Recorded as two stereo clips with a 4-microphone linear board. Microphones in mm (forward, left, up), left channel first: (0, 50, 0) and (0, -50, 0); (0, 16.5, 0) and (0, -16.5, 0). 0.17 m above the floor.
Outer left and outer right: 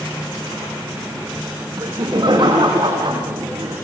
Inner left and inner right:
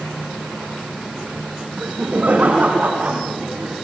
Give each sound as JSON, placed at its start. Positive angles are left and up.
{"t": 1.8, "sound": "laughter", "side_deg": -50, "distance_m": 7.5}